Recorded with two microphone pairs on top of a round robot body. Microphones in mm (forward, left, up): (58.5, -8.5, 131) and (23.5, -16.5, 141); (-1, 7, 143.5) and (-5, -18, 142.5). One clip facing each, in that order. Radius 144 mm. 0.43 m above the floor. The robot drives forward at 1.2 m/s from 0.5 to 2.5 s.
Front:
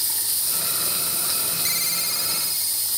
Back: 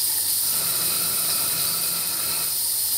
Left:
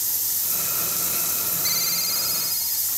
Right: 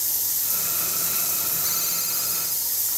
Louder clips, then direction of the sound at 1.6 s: Front 4 dB, left 6 dB; 25° left.